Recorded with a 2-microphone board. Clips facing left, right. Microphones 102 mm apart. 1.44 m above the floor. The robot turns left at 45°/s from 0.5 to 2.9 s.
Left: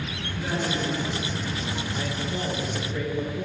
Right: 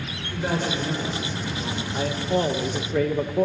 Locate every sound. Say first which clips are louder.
0.3 s a man speaking: right 3 dB; 50° right, 5 m; by 1.8 s 110° right, 5 m
1.9 s a man speaking: right 11 dB; 40° right, 1.5 m; by 3.5 s 85° right, 1.5 m